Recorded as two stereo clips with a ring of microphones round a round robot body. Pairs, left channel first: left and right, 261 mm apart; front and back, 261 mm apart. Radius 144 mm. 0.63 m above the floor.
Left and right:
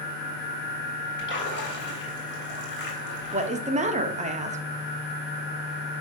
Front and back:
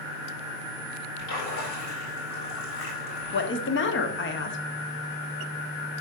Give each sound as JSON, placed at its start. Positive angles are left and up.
{"t": 1.2, "sound": "a splash", "azimuth_deg": 45, "distance_m": 4.0}
{"t": 3.3, "sound": "a woman speaking", "azimuth_deg": -30, "distance_m": 1.4}